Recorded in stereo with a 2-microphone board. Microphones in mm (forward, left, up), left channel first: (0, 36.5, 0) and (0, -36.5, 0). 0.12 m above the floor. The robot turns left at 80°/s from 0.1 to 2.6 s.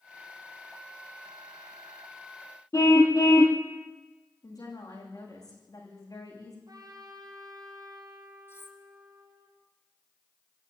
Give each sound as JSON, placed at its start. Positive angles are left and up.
{"t": 2.7, "sound": "a car horn", "side_deg": 45, "distance_m": 2.5}
{"t": 4.4, "sound": "a woman speaking", "side_deg": 60, "distance_m": 9.0}
{"t": 6.7, "sound": "a trumpet", "side_deg": -60, "distance_m": 4.5}
{"t": 8.5, "sound": "cutlery clinking", "side_deg": 35, "distance_m": 2.5}